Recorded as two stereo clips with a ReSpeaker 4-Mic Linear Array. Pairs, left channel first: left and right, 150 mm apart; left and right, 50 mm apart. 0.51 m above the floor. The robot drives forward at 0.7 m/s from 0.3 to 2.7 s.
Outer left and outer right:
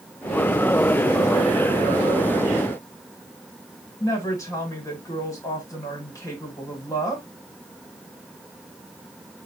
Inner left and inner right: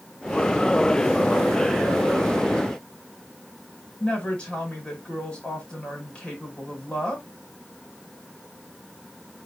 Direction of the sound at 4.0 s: 20° left (ahead or behind).